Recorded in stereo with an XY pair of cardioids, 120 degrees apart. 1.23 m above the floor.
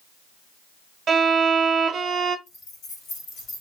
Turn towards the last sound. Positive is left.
turn(degrees=70)